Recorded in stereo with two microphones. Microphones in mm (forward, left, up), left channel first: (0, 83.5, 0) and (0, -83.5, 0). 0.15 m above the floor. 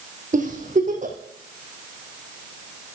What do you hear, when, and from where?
0.3 s a giggle: 50° right (ahead or behind), 3.5 m